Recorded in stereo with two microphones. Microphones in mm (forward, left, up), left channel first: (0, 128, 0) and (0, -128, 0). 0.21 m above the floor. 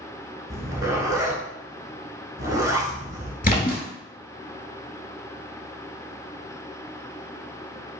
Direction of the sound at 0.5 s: 15° right (ahead or behind).